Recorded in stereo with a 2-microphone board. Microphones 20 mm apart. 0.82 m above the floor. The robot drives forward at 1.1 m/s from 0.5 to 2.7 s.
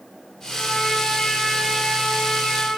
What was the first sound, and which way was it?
A trumpet, 60° left (ahead or behind).